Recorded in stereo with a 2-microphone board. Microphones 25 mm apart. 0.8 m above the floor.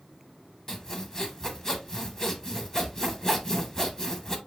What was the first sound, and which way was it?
Sawing, 20° left (ahead or behind).